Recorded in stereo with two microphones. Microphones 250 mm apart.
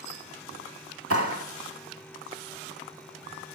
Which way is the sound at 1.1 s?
65° right (ahead or behind).